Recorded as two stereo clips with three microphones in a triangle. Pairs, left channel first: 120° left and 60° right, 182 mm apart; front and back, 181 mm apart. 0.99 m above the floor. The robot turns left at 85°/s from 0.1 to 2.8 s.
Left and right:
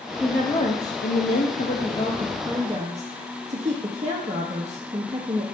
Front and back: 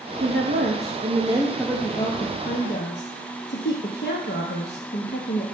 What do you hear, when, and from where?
0.2 s a woman speaking: 150° right, 1.0 m; by 5.5 s 10° right, 1.0 m